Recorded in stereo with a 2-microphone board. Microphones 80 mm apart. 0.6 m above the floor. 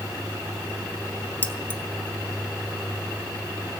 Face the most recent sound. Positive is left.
turn(degrees=25)  # may be behind; listen again after turning